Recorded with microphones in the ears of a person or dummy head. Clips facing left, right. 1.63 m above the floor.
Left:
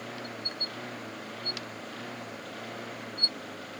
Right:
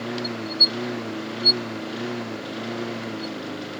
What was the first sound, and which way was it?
A lawn mower, 75° right (ahead or behind).